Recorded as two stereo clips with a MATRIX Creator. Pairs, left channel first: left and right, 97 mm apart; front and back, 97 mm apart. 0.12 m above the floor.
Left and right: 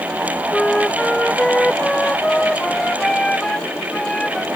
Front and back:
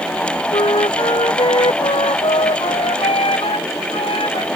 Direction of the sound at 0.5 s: 10° left.